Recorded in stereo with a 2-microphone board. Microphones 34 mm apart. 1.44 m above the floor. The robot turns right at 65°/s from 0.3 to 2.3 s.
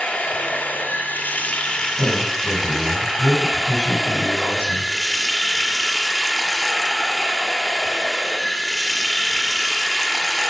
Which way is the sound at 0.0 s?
55° left.